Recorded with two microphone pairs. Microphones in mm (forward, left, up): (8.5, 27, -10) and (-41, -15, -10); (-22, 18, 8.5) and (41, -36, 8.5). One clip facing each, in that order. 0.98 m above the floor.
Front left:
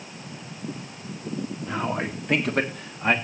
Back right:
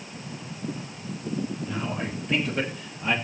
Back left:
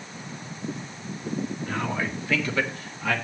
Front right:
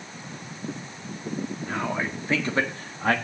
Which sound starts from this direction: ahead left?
A man speaking, at 1.7 s.